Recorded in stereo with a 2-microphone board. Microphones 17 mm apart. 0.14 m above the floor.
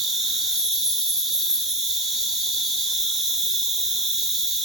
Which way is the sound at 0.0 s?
45° right (ahead or behind).